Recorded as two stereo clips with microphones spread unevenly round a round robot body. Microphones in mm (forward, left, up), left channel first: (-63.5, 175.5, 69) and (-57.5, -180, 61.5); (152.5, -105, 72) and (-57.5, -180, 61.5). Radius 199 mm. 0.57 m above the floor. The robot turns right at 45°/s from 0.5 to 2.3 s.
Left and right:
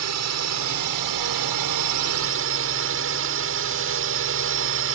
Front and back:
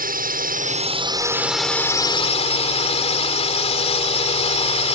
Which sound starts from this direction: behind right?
A drone, at 0.0 s.